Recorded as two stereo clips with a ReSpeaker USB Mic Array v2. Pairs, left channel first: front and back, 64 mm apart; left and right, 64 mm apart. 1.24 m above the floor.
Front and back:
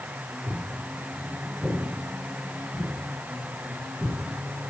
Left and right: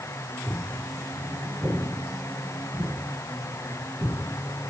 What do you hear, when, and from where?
0.5 s footsteps: 140° right, 3 m; by 4.2 s 115° right, 6.5 m